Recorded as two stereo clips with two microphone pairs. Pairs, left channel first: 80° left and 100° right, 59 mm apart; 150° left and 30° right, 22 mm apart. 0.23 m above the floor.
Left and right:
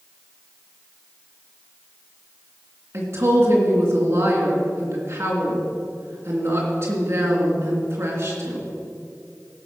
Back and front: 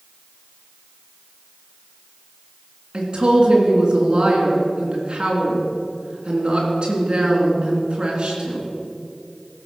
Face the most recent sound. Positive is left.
turn(degrees=-75)